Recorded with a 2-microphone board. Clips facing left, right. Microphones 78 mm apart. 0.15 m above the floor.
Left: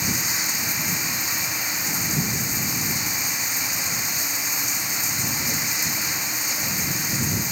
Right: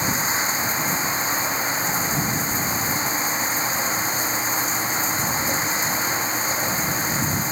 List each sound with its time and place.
0.0 s running water: 35° right (ahead or behind)